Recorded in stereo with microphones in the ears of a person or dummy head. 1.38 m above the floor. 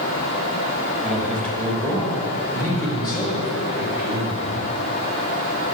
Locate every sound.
1.0 s a man speaking: 5° left (ahead or behind), 2 m; by 4.7 s 30° left (ahead or behind), 3.5 m